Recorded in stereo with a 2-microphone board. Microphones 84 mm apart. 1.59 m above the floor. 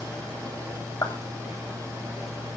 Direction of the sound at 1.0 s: 45° left (ahead or behind).